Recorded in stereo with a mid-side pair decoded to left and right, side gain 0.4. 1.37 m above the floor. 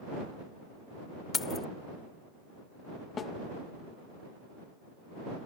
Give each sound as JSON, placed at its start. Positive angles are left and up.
{"t": 1.3, "sound": "keys jangling", "azimuth_deg": 40}
{"t": 3.2, "sound": "a snare drum", "azimuth_deg": 50}